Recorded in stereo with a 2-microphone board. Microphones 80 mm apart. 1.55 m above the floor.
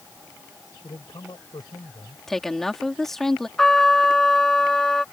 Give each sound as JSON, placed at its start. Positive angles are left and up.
{"t": 0.8, "sound": "a man speaking", "side_deg": 65}
{"t": 2.3, "sound": "a woman speaking", "side_deg": 5}
{"t": 3.6, "sound": "a trumpet", "side_deg": 5}